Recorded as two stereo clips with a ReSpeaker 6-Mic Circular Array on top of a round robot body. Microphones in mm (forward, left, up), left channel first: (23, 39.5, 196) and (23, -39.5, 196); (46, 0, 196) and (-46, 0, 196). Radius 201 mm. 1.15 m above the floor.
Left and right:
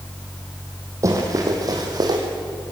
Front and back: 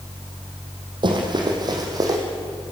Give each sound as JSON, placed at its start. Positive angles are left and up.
{"t": 1.0, "sound": "running footsteps", "azimuth_deg": -140, "distance_m": 3.5}